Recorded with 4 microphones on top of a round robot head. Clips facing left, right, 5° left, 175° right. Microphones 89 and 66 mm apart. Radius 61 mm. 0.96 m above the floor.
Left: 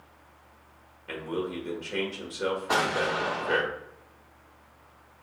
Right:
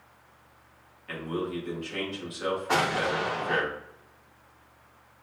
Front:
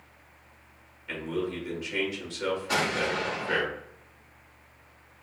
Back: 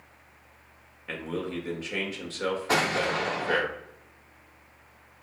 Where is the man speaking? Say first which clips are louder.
Even, front 1 dB; 145° left, 1.6 m.